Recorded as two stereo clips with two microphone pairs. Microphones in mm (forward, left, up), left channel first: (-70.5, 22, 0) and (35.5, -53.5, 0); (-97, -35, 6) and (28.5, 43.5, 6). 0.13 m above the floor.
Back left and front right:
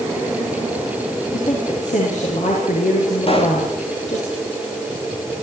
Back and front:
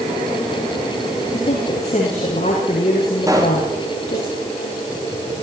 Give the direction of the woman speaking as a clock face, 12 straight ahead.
6 o'clock.